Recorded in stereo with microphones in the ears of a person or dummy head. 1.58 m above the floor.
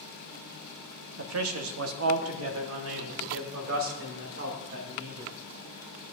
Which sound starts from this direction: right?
A man speaking, at 1.2 s.